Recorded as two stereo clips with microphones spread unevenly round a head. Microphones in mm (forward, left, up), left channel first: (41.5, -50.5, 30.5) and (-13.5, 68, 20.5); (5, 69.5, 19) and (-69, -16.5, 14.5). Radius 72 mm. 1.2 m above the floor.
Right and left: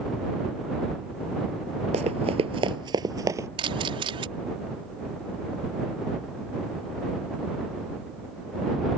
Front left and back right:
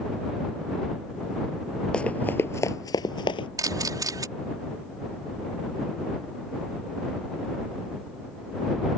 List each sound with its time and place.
1.9 s running footsteps: 120° left; by 3.5 s 50° left
3.6 s a camera shutter: 170° left